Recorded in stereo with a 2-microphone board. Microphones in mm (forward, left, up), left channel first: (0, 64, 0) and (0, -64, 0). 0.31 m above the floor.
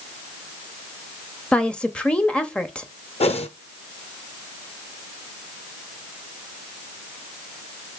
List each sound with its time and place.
1.5 s a woman speaking: 10° left (ahead or behind), 0.9 m
3.2 s a whoosh: 55° left (ahead or behind), 1.0 m